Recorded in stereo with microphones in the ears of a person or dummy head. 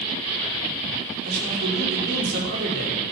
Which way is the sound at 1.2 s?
60° right (ahead or behind).